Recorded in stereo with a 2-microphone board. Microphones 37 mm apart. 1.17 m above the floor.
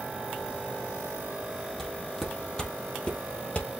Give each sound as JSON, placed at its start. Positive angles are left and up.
{"t": 1.8, "sound": "footsteps", "side_deg": 5, "distance_m": 2.5}